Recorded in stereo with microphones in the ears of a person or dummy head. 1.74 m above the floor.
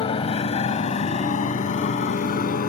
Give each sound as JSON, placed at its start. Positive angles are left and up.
{"t": 0.0, "sound": "a motorcycle", "side_deg": 30}